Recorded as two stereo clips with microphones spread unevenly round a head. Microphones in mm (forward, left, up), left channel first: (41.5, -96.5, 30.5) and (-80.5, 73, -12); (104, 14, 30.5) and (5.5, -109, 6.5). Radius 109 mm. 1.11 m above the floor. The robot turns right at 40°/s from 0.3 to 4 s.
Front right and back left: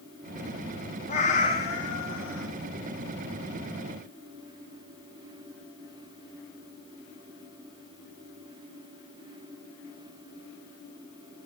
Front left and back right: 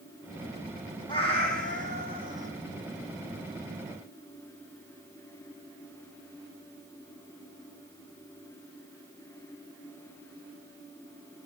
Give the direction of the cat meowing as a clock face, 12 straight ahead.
12 o'clock.